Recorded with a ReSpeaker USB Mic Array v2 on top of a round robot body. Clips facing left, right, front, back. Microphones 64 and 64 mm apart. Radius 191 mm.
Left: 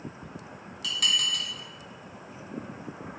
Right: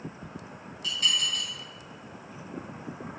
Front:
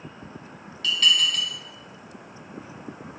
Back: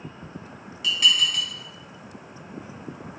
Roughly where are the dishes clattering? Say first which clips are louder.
Left 1 dB, even; left.